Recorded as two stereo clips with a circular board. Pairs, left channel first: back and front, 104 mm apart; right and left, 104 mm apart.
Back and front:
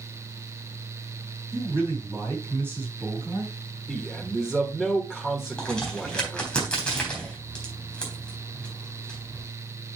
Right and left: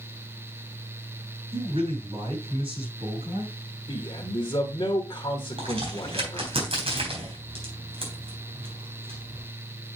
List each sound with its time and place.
1.5 s a man speaking: 65° left, 5 m
3.9 s a man speaking: 85° right, 1.3 m
5.6 s a crack: 100° left, 3.5 m